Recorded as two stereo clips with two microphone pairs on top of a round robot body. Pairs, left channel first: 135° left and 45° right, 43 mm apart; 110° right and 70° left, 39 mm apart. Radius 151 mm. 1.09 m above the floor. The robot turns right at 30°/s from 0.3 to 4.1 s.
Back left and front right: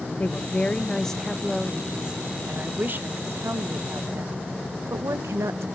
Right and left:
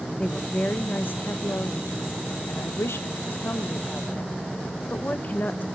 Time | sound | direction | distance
0.2 | a woman speaking | 170° right | 0.9 m